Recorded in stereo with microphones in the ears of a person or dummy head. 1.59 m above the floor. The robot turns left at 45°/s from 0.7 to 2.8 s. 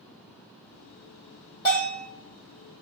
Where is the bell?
20° left (ahead or behind), 1.8 m; by 2.1 s 5° left (ahead or behind), 1.8 m.